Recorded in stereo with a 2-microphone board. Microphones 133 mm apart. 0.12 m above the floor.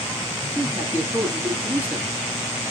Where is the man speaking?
10° right (ahead or behind), 1.1 m.